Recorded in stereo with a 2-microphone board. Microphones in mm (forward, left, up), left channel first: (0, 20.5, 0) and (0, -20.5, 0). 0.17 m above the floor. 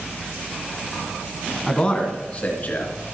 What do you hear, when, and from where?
1.7 s a man speaking: 15° left (ahead or behind), 1.5 m; by 2.9 s 45° left (ahead or behind), 2.5 m